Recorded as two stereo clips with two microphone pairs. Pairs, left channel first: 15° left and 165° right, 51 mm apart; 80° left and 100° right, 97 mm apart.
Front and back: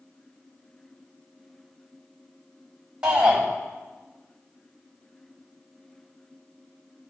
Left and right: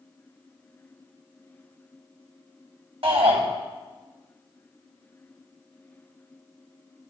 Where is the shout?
95° right, 4 m.